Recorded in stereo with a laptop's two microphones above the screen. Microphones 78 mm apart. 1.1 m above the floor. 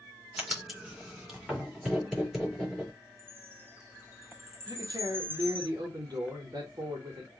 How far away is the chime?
About 1.1 m.